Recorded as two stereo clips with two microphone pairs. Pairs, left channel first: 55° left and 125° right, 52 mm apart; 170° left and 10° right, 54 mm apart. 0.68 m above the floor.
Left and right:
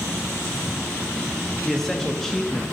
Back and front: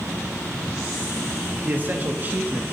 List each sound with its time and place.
1.6 s a man speaking: 20° right, 0.6 m